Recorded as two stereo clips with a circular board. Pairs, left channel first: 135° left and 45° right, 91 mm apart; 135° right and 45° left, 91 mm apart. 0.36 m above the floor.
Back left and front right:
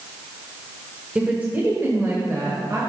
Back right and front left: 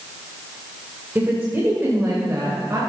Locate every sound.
1.1 s a woman speaking: 10° left, 1.4 m; by 2.8 s straight ahead, 2.0 m